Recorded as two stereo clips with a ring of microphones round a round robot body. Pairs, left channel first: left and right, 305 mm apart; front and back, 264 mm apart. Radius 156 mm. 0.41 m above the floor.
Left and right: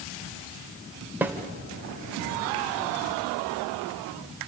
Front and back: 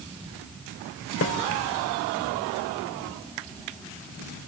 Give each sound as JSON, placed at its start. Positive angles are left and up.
{"t": 1.2, "sound": "a snare drum", "azimuth_deg": -10, "distance_m": 1.9}